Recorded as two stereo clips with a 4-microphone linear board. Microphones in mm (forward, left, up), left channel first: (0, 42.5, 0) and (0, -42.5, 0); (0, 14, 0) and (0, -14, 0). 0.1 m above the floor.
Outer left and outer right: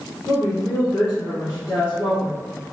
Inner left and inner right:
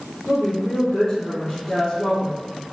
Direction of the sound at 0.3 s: 25° left (ahead or behind).